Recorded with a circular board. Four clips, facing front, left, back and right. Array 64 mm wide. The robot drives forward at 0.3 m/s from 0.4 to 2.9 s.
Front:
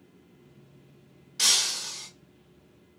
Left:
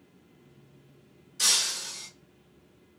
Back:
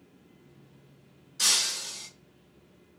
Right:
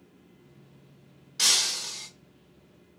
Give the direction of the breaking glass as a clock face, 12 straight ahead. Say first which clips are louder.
Right 2 dB, front 1 dB; 2 o'clock.